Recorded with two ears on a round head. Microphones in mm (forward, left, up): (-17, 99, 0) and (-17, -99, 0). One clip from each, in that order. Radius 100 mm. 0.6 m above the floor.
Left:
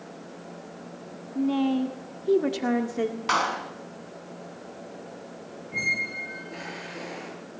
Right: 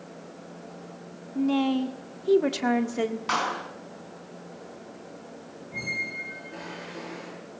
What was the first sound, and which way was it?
A woman speaking, 20° right (ahead or behind).